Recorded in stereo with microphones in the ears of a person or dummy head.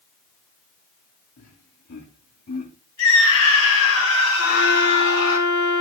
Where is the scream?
75° left (ahead or behind), 1.8 m.